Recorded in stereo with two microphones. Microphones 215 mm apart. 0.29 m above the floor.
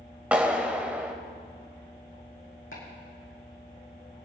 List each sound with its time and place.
0.3 s a clap: 5° right (ahead or behind), 1.3 m
2.7 s chopping: 80° left, 5.5 m